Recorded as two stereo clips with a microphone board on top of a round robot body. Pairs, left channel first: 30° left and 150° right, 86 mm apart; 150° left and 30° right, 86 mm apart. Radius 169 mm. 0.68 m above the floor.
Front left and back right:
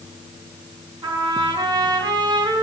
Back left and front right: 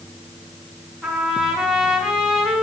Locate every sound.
1.0 s a trumpet: 115° right, 5.5 m